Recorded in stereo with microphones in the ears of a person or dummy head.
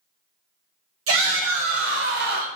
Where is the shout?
80° right, 1.7 m; by 2.5 s 50° right (ahead or behind), 1.3 m.